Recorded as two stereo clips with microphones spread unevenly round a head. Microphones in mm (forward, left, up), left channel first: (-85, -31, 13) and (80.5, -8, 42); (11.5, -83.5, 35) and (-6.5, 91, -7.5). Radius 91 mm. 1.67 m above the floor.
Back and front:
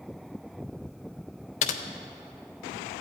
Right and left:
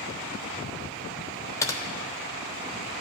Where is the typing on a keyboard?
130° right, 0.7 m.